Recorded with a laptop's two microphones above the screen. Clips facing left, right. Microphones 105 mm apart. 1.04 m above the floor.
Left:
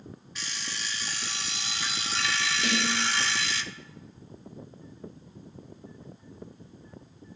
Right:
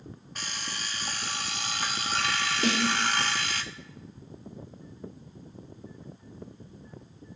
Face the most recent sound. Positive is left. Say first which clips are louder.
# right 3 dB
turn(degrees=-40)  # may be behind; listen again after turning